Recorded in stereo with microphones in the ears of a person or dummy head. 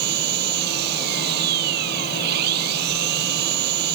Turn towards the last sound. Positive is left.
turn(degrees=-60)  # may be behind; listen again after turning